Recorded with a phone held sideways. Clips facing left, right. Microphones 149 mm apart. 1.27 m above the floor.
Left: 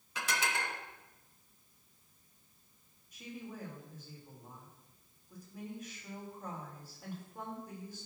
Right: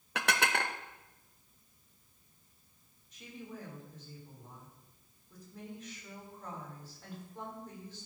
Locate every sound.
0.1 s dishes clattering: 75° right (ahead or behind), 0.8 m
3.1 s a woman speaking: 10° left (ahead or behind), 5 m